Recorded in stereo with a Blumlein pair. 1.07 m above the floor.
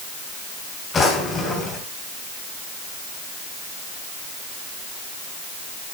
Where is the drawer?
20° left, 2.5 m.